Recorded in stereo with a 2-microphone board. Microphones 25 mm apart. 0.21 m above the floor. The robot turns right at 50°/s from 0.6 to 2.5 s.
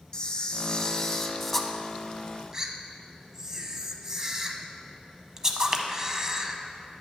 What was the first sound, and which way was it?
A camera shutter, 35° left (ahead or behind).